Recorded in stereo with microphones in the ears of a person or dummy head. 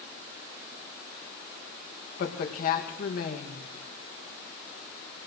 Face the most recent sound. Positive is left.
turn(degrees=50)  # may be behind; listen again after turning